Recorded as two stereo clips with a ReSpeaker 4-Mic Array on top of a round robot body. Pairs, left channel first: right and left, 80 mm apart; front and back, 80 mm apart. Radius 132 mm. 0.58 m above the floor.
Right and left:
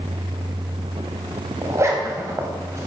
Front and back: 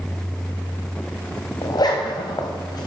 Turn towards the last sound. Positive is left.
turn(degrees=35)